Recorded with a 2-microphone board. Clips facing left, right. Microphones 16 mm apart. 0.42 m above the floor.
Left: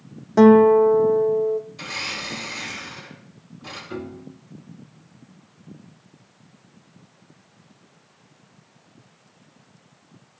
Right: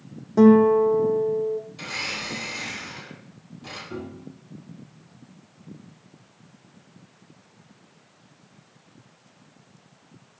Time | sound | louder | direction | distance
0.4 | a guitar | left 3 dB | 35° left (ahead or behind) | 0.7 m
1.8 | a blender | left 1 dB | 10° right (ahead or behind) | 6.5 m
3.9 | a piano | left 2 dB | 15° left (ahead or behind) | 1.2 m